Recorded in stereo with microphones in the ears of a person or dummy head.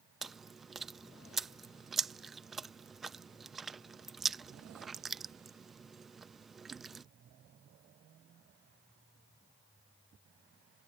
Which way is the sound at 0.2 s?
Centre (ahead or behind).